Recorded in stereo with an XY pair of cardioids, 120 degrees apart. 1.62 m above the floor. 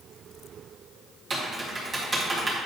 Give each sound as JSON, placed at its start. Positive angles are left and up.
{"t": 1.3, "sound": "typing on a keyboard", "azimuth_deg": -25, "distance_m": 1.5}